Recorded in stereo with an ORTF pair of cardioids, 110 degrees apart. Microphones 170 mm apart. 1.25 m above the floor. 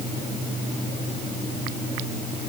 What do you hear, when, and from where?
Only background noise.